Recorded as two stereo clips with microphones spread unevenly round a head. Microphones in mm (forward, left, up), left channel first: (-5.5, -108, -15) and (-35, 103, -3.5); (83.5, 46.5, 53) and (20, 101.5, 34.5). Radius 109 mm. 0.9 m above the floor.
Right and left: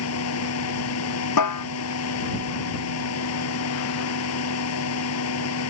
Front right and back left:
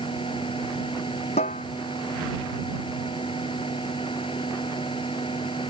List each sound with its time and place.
0.0 s a fan: 105° right
1.4 s a snare drum: 80° right